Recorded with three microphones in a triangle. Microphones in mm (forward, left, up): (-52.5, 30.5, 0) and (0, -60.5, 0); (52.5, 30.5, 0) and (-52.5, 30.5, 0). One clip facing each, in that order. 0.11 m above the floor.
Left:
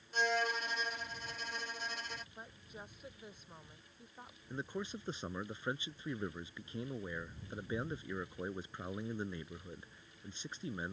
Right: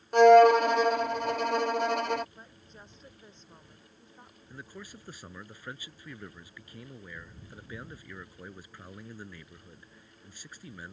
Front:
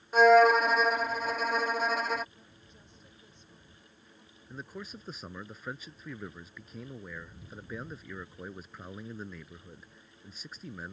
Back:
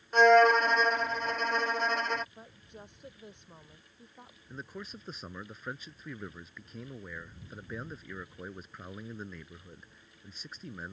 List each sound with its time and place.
0.1 s a violin: 85° right
2.4 s a woman speaking: 160° right
4.5 s a man speaking: 90° left